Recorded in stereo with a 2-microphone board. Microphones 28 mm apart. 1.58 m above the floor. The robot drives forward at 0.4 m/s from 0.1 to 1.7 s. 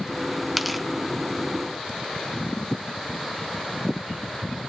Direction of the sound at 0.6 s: Centre (ahead or behind).